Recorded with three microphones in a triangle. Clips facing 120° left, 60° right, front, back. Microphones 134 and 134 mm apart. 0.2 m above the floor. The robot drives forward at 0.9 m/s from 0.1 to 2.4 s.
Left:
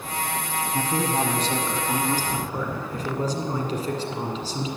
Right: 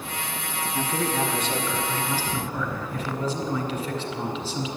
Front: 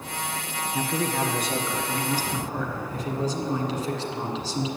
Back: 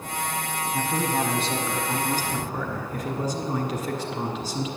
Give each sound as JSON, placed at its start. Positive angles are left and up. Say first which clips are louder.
{"t": 0.7, "sound": "a man speaking", "louder": "left 1 dB, even", "azimuth_deg": 95, "distance_m": 1.3}